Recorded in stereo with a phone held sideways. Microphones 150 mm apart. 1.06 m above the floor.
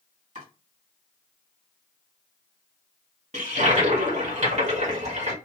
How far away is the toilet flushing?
About 1.3 m.